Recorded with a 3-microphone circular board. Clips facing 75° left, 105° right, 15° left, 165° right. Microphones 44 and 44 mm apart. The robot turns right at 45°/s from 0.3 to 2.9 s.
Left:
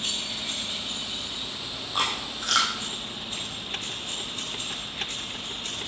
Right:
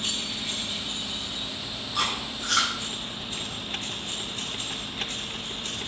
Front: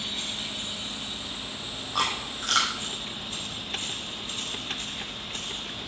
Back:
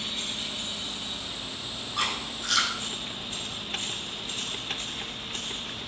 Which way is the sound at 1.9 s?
25° left.